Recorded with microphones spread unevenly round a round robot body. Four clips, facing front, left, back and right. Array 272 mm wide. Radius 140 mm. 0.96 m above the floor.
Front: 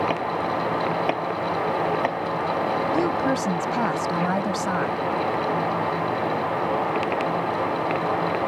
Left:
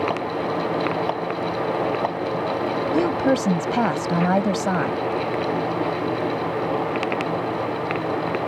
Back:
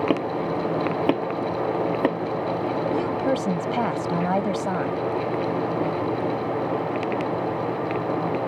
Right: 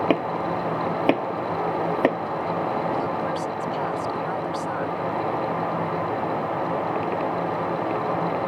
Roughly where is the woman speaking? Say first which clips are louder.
Left 6 dB, front 1 dB; left.